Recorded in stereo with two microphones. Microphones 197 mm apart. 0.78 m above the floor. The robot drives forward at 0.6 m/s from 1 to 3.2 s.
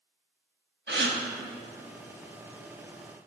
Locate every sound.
0.9 s a gasp: 65° right (ahead or behind), 0.8 m